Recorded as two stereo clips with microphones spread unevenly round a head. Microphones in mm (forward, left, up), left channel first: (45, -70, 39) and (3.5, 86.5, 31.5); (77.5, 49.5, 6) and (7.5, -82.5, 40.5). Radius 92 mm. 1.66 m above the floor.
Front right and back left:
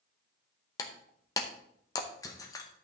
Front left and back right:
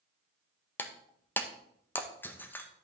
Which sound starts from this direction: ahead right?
Breaking glass, at 0.8 s.